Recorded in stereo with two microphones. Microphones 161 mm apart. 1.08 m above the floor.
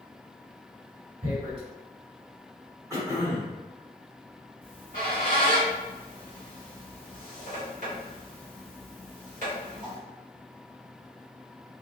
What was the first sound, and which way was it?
Tearing paper, 40° right (ahead or behind).